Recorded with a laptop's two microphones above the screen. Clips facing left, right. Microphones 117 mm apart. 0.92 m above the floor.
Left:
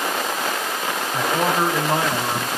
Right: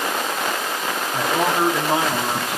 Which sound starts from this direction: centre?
A man speaking, at 1.1 s.